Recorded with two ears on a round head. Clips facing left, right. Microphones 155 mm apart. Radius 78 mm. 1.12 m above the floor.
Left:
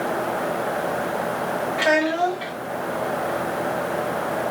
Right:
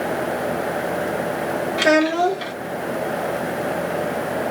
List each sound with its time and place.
1.8 s a child speaking: 50° right (ahead or behind), 0.9 m